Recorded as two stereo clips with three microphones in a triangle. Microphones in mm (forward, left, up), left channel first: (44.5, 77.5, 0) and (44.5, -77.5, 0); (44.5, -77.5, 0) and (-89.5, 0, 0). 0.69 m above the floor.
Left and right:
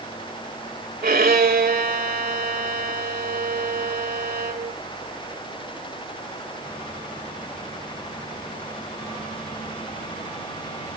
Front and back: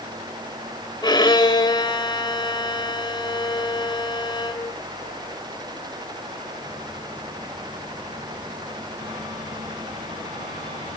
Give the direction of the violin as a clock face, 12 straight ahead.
3 o'clock.